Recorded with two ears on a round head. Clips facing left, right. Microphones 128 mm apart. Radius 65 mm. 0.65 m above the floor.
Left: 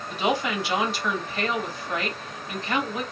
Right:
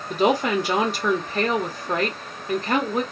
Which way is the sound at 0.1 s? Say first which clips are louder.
Right 5 dB; 40° right (ahead or behind).